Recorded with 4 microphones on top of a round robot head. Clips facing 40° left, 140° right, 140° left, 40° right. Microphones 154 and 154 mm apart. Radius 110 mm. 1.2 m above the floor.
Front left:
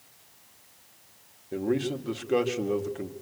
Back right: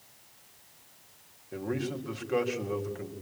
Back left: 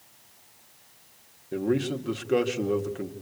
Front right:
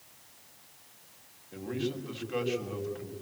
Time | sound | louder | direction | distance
1.5 | a man speaking | front left 5 dB, back left 8 dB | 100° left | 2 m